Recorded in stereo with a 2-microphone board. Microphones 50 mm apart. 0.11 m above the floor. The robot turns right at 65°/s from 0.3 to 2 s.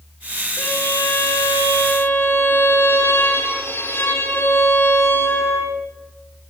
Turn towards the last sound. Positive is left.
turn(degrees=125)